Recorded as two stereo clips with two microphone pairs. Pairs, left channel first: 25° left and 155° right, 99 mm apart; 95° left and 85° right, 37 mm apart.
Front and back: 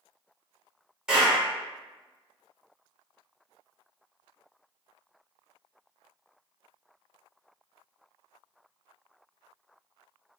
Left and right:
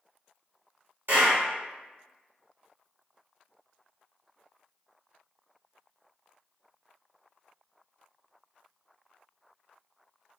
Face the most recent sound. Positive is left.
turn(degrees=-75)